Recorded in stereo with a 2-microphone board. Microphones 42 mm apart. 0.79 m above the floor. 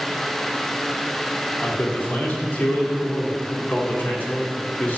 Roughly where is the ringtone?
No ringtone in this recording.